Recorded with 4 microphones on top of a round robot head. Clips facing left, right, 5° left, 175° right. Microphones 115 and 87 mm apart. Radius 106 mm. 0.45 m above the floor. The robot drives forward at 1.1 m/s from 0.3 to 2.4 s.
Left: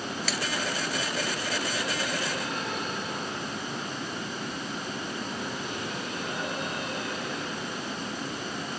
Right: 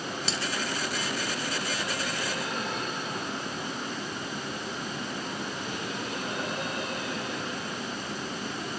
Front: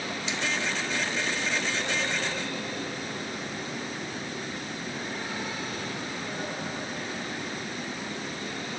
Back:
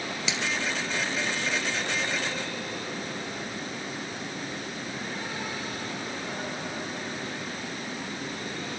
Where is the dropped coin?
160° right.